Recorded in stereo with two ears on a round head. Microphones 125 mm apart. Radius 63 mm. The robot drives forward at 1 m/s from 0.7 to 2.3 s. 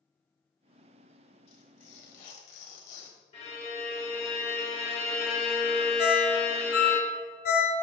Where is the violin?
45° left (ahead or behind), 1.6 m.